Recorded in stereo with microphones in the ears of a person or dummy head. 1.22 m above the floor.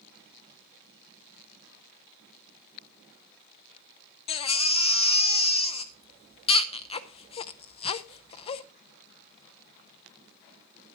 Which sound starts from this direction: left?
A baby crying, at 4.3 s.